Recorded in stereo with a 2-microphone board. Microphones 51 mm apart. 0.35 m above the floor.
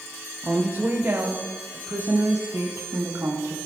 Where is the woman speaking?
25° right (ahead or behind), 1.2 m; by 3.6 s 70° right (ahead or behind), 3 m.